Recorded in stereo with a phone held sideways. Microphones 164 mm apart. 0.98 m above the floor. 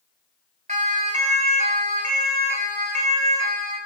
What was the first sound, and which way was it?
A siren, 50° right (ahead or behind).